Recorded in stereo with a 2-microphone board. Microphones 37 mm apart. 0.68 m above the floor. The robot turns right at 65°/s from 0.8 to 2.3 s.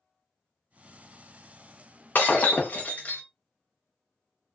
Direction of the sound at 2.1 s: 55° left (ahead or behind).